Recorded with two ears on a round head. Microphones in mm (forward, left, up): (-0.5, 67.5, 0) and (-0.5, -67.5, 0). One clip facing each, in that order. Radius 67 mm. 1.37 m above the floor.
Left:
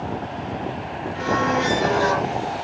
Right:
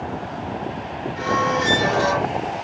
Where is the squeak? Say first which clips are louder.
Even; 20° right (ahead or behind), 1.3 m.